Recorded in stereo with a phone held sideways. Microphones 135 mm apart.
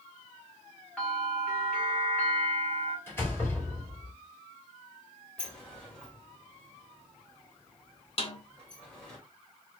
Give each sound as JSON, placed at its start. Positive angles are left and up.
{"t": 1.0, "sound": "a bell", "side_deg": 5, "distance_m": 1.8}
{"t": 3.1, "sound": "a door slam", "side_deg": 15, "distance_m": 2.0}
{"t": 5.4, "sound": "a sliding door", "side_deg": 10, "distance_m": 1.8}
{"t": 8.2, "sound": "a snare drum", "side_deg": 45, "distance_m": 0.7}